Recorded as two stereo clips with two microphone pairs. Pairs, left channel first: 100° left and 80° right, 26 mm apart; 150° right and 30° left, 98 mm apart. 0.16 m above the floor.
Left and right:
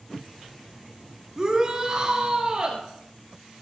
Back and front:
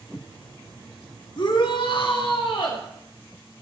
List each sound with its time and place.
1.4 s a shout: 145° right, 2.5 m; by 2.8 s 135° right, 3.5 m